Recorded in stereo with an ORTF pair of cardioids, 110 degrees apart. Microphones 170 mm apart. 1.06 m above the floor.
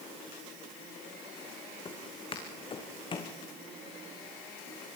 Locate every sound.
1.9 s footsteps: 30° left, 4 m